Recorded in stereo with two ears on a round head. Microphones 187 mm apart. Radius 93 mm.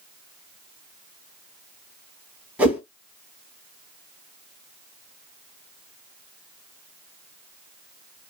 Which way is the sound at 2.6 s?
5° right (ahead or behind).